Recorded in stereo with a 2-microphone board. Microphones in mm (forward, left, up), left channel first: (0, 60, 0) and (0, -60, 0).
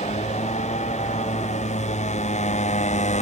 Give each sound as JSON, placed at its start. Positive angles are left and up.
{"t": 0.0, "sound": "a motorcycle", "side_deg": 75}